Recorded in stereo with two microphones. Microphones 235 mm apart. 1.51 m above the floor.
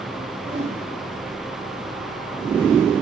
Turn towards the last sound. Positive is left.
turn(degrees=-55)  # may be behind; listen again after turning